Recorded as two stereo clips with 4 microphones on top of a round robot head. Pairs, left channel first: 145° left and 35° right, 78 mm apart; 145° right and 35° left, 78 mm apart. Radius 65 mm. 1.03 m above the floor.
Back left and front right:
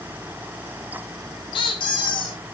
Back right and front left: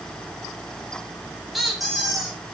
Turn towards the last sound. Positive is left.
turn(degrees=125)